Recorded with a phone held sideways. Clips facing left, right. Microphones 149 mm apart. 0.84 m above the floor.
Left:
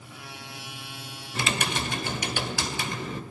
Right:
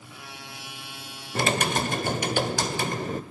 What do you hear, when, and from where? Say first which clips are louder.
1.4 s typing on a keyboard: right 5 dB; 45° right (ahead or behind), 1.9 m